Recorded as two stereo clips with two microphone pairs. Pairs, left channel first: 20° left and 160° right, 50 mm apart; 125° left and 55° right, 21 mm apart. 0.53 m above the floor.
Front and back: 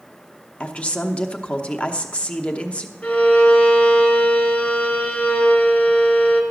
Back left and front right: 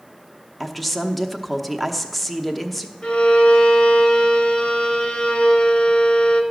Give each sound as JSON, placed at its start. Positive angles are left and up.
{"t": 0.6, "sound": "a woman speaking", "azimuth_deg": 45, "distance_m": 0.7}
{"t": 3.0, "sound": "a violin", "azimuth_deg": 90, "distance_m": 1.5}